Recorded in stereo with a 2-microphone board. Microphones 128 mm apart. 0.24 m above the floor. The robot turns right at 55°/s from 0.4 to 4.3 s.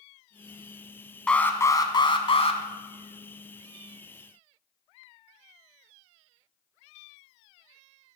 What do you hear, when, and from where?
1.3 s an alarm: 10° left, 1.1 m; by 2.6 s 80° left, 1.1 m